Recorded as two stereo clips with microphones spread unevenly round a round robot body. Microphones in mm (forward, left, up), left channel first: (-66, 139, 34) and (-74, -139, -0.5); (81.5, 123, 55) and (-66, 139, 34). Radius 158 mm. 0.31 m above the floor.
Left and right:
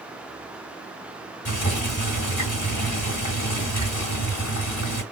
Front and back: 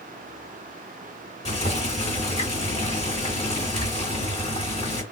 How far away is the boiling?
About 2 m.